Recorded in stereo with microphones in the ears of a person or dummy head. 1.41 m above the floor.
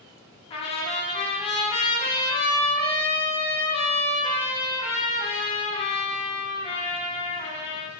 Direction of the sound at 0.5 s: 30° left (ahead or behind).